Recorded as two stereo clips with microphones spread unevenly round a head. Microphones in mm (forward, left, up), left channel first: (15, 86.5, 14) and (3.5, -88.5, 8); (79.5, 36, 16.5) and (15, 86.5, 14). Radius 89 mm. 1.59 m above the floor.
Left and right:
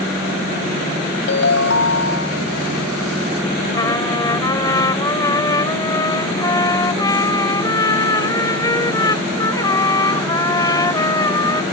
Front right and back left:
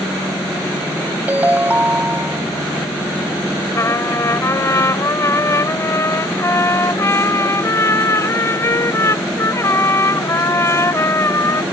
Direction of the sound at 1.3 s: 75° left.